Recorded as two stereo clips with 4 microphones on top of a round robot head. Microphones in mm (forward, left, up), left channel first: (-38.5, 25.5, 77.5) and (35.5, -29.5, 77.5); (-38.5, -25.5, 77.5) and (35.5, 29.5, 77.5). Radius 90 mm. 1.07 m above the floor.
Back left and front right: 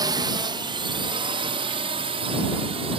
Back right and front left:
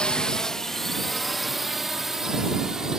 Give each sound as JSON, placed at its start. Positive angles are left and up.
{"t": 0.0, "sound": "a drone", "azimuth_deg": -65}